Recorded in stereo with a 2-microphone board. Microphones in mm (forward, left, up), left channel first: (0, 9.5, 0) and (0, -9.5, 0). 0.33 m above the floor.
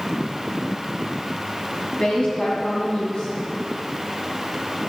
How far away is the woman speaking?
About 2.5 m.